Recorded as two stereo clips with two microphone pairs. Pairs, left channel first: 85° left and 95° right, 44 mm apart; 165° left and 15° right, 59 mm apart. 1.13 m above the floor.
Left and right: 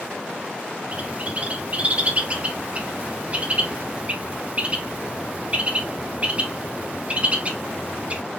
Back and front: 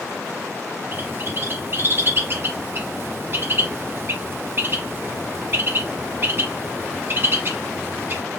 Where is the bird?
45° right, 0.7 m.